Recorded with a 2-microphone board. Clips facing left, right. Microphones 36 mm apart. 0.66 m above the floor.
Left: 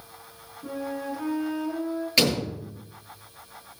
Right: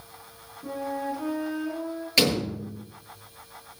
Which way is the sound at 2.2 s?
5° left (ahead or behind).